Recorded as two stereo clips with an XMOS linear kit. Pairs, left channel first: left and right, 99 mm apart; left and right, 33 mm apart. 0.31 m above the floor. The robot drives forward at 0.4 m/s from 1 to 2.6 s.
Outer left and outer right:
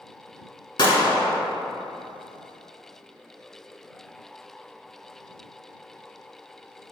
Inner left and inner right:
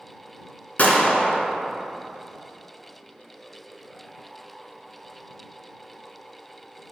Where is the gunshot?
50° left (ahead or behind), 0.6 m; by 1.4 s 40° left (ahead or behind), 0.7 m.